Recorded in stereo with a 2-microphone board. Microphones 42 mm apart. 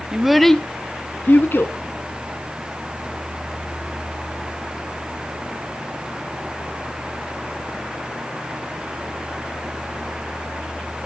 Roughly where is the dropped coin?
No dropped coin in this recording.